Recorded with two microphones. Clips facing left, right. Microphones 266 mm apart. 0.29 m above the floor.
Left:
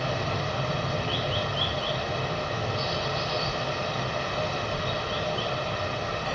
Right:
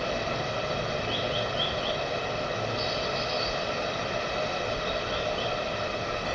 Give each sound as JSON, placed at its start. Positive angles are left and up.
{"t": 0.0, "sound": "running water", "side_deg": 65, "distance_m": 1.0}